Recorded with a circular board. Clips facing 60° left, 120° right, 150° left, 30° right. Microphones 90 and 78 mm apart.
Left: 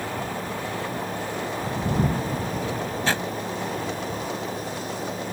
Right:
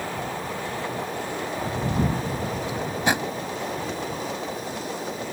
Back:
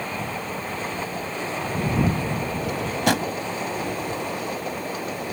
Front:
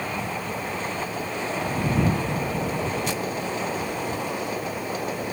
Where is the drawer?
165° left.